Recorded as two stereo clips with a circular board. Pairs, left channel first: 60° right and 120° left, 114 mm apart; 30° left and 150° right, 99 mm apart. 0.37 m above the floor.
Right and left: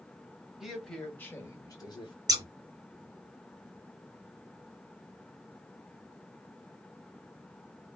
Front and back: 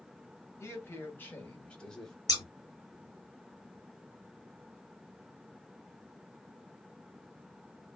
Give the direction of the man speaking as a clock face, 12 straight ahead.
11 o'clock.